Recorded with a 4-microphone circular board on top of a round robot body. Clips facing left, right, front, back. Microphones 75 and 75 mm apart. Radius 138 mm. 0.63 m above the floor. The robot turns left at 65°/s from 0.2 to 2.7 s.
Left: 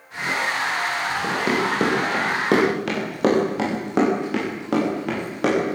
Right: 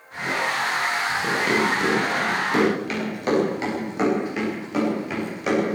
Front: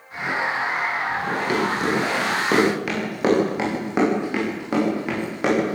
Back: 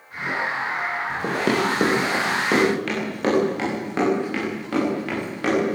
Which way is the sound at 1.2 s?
175° left.